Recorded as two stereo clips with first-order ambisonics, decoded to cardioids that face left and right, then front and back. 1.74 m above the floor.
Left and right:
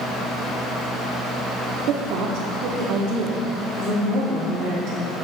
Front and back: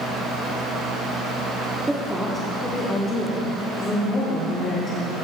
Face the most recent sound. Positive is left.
turn(degrees=-55)